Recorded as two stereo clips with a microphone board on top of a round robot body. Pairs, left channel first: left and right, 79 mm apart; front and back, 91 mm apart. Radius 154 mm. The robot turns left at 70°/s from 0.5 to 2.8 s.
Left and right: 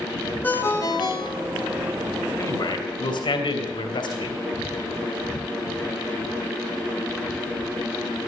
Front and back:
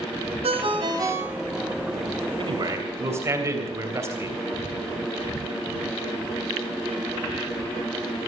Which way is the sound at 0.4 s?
160° left.